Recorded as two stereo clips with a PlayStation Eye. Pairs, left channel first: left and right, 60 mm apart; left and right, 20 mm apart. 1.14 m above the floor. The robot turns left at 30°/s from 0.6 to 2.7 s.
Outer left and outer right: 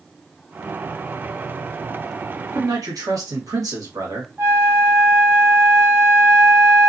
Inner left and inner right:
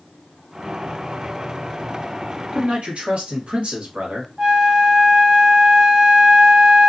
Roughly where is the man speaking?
Right.